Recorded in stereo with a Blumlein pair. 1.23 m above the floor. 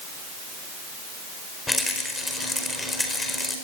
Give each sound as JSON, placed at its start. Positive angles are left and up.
{"t": 1.7, "sound": "a rattle", "azimuth_deg": 10, "distance_m": 4.5}